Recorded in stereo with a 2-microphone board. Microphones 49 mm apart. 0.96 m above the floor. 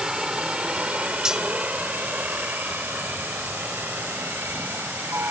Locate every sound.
0.0 s a helicopter: 15° right (ahead or behind); by 5.3 s 55° right (ahead or behind)
1.2 s cutlery clinking: 15° right (ahead or behind)